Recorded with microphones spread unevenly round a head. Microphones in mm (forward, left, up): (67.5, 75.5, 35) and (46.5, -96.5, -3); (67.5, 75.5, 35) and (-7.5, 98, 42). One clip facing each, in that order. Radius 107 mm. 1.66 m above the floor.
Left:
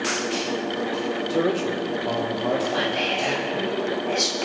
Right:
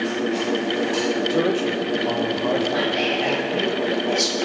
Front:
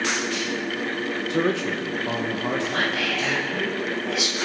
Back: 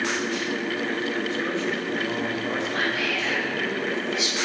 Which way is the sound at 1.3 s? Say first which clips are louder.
Left 1 dB, front 3 dB; 5° right.